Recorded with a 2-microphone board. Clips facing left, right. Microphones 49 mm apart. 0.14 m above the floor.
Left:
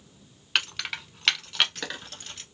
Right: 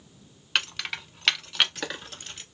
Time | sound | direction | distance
0.6 | keys jangling | 5° left (ahead or behind) | 0.8 m